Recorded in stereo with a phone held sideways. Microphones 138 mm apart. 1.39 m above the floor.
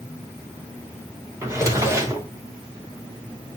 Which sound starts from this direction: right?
A drawer, at 1.4 s.